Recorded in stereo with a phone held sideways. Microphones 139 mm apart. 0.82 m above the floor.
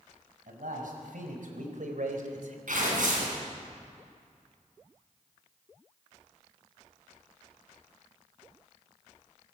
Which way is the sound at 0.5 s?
85° right.